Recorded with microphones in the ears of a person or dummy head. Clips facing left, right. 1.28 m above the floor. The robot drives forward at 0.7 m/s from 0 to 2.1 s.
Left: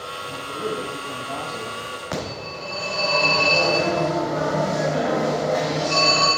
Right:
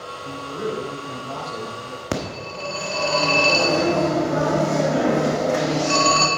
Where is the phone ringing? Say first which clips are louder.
Right 3 dB; 45° right (ahead or behind), 1.3 m.